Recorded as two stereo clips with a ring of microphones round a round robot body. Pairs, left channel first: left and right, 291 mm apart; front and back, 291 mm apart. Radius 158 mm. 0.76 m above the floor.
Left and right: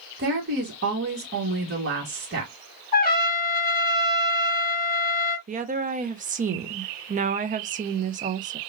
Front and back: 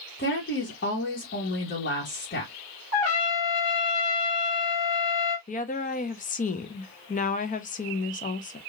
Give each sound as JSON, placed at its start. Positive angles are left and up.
{"t": 0.2, "sound": "a woman speaking", "azimuth_deg": -45, "distance_m": 1.3}
{"t": 2.9, "sound": "a trumpet", "azimuth_deg": 35, "distance_m": 1.2}
{"t": 5.5, "sound": "a woman speaking", "azimuth_deg": -45, "distance_m": 0.6}